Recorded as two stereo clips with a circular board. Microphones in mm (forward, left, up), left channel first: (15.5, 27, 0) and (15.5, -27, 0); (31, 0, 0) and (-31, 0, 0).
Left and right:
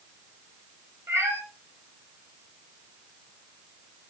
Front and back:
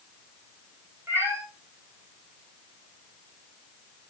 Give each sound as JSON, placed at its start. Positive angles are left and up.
{"t": 1.1, "sound": "a cat meowing", "azimuth_deg": -130, "distance_m": 6.0}